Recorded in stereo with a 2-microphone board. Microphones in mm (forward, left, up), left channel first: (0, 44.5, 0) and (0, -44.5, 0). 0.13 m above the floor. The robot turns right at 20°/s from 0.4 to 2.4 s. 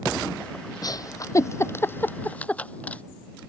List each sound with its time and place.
0.8 s a giggle: 45° left (ahead or behind); by 3.0 s 15° left (ahead or behind)